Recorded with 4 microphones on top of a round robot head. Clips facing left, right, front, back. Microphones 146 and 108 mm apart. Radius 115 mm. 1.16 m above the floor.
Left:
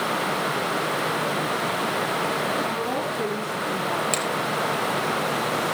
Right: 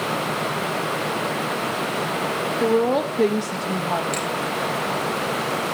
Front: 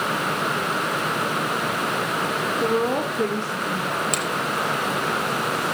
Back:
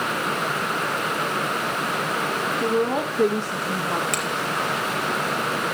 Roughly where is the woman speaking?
Right.